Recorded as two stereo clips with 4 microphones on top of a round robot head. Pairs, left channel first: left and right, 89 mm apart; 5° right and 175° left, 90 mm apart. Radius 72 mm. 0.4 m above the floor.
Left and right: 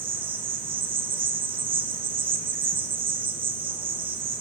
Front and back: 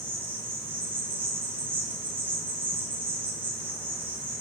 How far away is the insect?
About 0.7 m.